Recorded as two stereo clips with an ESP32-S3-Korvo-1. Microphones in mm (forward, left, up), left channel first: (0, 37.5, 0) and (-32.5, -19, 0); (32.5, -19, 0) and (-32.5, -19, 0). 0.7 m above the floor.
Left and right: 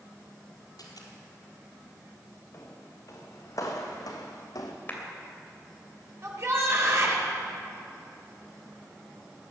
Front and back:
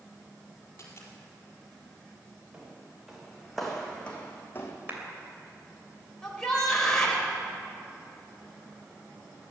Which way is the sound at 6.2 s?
80° right.